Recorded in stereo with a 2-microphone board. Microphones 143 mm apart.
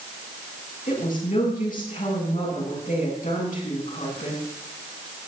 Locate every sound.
0.9 s a woman speaking: 75° left (ahead or behind), 9 m